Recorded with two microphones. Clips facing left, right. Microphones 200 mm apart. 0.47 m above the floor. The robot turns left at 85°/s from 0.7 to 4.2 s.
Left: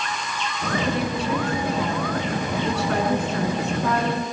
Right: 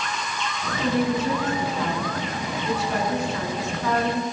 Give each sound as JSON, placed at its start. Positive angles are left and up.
{"t": 0.8, "sound": "a woman speaking", "azimuth_deg": -105, "distance_m": 6.5}